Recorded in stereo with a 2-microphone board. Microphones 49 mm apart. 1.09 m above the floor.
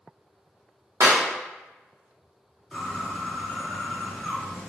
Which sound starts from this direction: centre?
A bird, at 2.7 s.